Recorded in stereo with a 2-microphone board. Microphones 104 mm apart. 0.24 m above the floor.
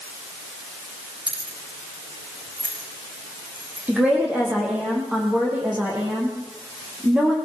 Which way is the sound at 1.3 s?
65° right (ahead or behind).